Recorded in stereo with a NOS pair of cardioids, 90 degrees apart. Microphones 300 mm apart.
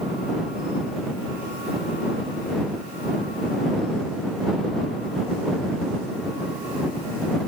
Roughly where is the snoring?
No snoring in this recording.